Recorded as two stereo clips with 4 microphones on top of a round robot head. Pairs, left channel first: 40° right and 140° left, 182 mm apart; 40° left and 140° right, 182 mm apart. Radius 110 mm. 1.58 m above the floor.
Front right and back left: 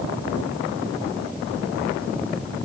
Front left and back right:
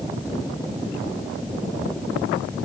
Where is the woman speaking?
No woman speaking in this recording.